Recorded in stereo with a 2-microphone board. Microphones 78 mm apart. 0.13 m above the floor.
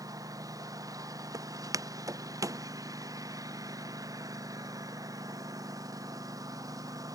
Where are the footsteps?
50° right (ahead or behind); by 2.6 s 45° right (ahead or behind).